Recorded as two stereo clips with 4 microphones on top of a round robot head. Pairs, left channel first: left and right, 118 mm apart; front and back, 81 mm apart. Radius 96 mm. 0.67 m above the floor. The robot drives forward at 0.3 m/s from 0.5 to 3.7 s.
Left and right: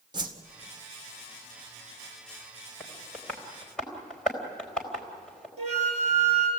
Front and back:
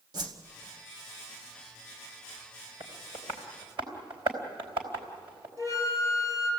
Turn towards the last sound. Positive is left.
turn(degrees=-125)